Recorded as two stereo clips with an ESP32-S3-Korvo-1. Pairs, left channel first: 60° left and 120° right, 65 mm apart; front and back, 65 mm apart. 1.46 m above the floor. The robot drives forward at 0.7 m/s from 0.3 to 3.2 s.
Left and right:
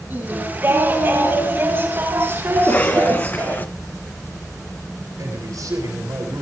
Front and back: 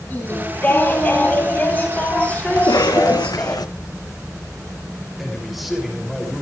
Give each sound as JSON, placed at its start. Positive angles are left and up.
{"t": 0.1, "sound": "singing", "azimuth_deg": -60, "distance_m": 10.0}
{"t": 2.6, "sound": "a cough", "azimuth_deg": 0, "distance_m": 1.6}
{"t": 5.2, "sound": "a man speaking", "azimuth_deg": -90, "distance_m": 7.0}